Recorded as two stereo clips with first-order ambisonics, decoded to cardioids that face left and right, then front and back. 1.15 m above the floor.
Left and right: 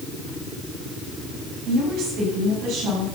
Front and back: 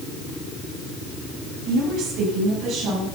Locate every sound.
1.6 s a woman speaking: 135° right, 5.5 m; by 3.1 s 130° right, 6.5 m